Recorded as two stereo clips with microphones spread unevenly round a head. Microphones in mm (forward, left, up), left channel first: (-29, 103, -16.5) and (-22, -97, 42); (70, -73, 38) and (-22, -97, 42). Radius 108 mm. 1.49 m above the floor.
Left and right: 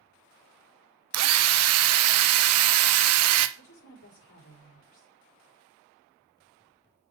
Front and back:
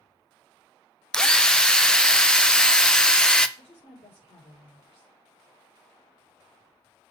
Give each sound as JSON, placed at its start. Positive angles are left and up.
{"t": 1.1, "sound": "a drill", "azimuth_deg": -65, "distance_m": 0.8}
{"t": 3.6, "sound": "a woman speaking", "azimuth_deg": 75, "distance_m": 5.0}